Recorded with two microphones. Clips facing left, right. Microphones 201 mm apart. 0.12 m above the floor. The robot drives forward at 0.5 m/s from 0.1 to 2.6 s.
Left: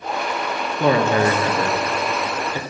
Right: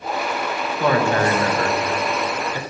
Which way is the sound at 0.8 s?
25° left (ahead or behind).